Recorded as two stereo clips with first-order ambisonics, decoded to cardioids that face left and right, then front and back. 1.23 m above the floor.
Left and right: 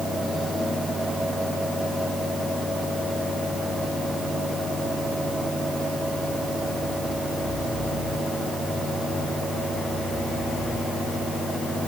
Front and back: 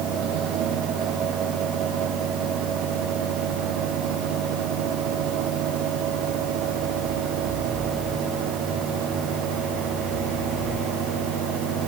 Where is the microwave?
No microwave in this recording.